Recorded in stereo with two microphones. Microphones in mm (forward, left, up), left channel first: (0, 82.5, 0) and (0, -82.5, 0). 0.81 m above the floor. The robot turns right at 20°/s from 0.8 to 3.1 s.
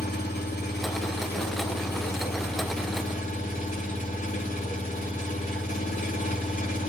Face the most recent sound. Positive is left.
turn(degrees=125)